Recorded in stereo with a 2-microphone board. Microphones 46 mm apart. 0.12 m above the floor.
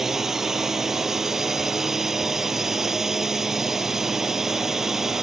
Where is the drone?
5° right (ahead or behind).